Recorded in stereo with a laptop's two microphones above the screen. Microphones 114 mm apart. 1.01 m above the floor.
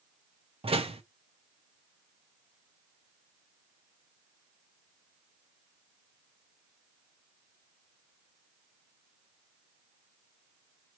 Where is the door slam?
55° right (ahead or behind), 1.3 m.